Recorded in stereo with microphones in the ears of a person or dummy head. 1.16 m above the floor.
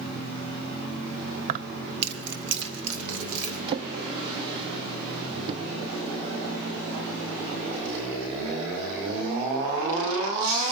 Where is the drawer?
25° right (ahead or behind), 0.8 m.